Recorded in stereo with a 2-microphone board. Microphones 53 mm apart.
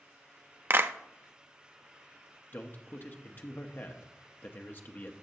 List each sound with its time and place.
0.7 s a clap: 45° right (ahead or behind), 0.5 m
2.5 s a man speaking: 40° left (ahead or behind), 0.9 m